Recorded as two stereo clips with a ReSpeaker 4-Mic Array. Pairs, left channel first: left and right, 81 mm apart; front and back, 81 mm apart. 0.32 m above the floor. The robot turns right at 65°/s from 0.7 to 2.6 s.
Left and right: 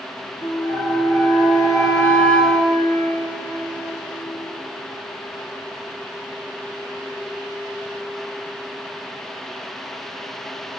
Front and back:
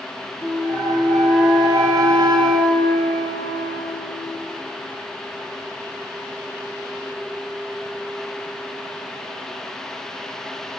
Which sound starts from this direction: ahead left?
A flute, at 0.4 s.